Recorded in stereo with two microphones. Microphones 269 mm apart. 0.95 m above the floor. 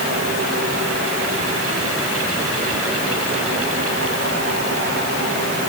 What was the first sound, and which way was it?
Only background noise.